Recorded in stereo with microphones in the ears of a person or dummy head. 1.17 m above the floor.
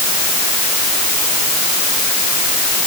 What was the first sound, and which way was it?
Only background noise.